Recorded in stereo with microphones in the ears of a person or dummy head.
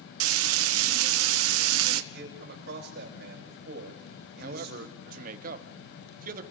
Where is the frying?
85° right, 1.6 m.